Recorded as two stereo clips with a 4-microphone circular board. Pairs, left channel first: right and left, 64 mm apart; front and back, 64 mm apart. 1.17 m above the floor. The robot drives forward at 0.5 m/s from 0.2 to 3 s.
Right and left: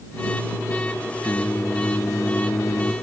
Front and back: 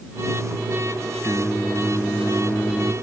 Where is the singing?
55° right; by 2.9 s 60° right.